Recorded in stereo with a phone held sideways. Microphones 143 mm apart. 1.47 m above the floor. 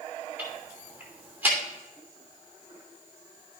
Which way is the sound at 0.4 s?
15° right (ahead or behind).